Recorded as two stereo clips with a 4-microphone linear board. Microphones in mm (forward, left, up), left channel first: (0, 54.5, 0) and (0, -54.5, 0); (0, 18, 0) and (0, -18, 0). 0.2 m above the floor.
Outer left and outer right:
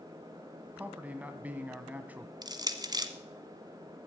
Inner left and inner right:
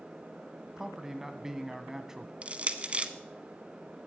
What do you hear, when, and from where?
0.8 s a man speaking: 15° right (ahead or behind), 1.7 m
2.4 s crushing: 35° right (ahead or behind), 1.0 m